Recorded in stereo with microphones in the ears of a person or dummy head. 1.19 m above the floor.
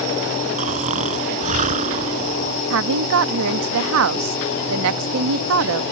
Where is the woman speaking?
70° right (ahead or behind).